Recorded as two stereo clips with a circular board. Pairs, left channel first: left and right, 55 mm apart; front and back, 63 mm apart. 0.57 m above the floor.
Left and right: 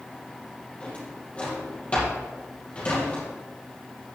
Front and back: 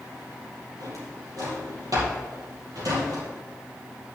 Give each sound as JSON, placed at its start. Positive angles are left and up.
{"t": 0.8, "sound": "a drawer", "azimuth_deg": 155, "distance_m": 5.0}